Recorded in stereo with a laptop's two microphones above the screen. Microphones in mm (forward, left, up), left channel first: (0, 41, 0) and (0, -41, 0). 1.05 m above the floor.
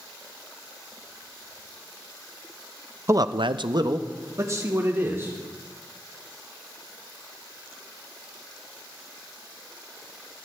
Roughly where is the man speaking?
Right.